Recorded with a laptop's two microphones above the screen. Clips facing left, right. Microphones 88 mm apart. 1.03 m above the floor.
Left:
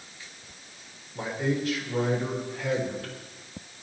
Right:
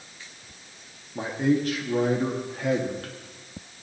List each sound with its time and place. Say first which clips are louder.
1.1 s a man speaking: right 5 dB; 55° right (ahead or behind), 1.6 m